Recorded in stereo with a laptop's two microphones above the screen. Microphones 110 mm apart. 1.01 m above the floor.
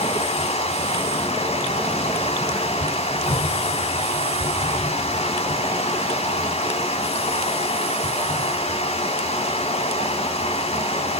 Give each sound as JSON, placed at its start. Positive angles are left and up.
{"t": 0.0, "sound": "running water", "side_deg": 70, "distance_m": 2.0}